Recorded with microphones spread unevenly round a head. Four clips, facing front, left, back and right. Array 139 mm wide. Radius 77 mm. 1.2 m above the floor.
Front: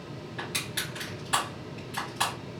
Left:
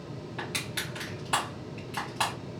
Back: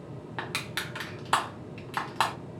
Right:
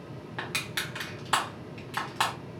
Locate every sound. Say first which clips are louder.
0.4 s crushing: right 2 dB, back 2 dB; 175° right, 0.9 m